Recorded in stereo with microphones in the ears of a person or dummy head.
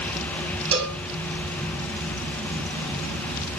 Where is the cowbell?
40° right (ahead or behind), 3 m.